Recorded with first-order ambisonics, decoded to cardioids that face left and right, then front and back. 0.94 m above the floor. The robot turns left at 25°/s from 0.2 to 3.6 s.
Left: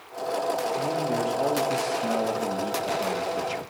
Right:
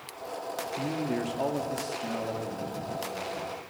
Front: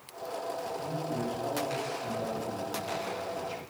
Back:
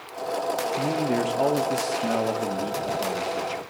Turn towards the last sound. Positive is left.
turn(degrees=120)